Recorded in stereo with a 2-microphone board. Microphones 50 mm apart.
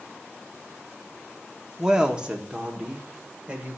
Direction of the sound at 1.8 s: 15° right (ahead or behind).